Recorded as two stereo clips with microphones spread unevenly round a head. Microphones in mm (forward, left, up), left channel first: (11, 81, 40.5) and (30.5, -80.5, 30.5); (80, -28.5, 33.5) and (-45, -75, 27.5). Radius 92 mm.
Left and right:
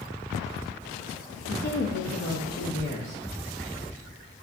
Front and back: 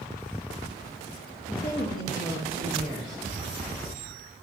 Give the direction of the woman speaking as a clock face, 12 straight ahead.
10 o'clock.